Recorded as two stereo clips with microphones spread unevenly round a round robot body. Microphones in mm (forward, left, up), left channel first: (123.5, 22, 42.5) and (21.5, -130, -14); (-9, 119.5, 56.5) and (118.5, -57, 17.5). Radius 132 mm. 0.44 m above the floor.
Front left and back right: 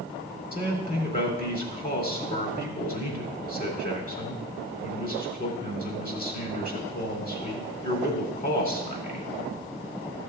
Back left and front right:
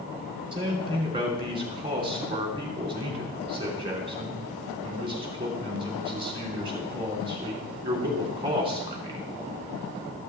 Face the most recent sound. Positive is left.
turn(degrees=10)